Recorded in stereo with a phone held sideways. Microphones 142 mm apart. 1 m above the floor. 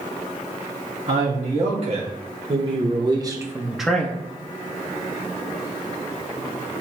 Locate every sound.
1.1 s a man speaking: 55° right (ahead or behind), 2 m; by 4.2 s 20° left (ahead or behind), 0.6 m